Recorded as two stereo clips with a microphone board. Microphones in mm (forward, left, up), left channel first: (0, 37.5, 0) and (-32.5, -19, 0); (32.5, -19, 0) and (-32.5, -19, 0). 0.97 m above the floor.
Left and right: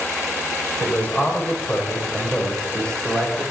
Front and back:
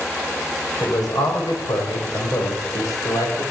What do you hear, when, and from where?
0.8 s a man speaking: 5° right, 5 m; by 3.5 s 25° right, 4.5 m